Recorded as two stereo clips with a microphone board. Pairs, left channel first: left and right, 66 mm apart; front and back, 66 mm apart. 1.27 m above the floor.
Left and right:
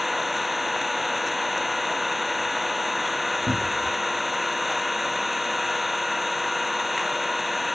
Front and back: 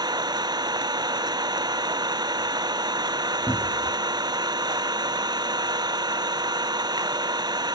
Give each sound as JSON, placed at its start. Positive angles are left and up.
{"t": 0.0, "sound": "an engine running", "azimuth_deg": -175}
{"t": 3.5, "sound": "a cupboard door", "azimuth_deg": -40}